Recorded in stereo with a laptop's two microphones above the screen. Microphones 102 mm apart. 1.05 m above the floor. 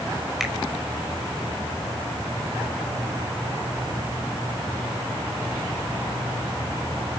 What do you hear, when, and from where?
0.4 s a finger snap: 5° right (ahead or behind), 5 m